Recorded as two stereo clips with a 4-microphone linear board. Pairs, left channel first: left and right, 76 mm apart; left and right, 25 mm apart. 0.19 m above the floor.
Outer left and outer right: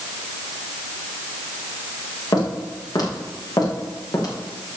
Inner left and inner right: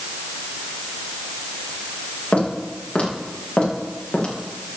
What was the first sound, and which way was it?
Footsteps, 60° left (ahead or behind).